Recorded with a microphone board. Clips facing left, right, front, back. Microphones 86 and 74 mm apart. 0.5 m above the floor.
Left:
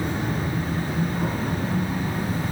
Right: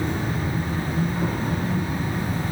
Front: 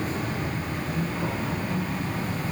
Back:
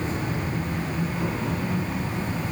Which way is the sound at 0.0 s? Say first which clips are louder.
Even, back 1 dB; 115° left.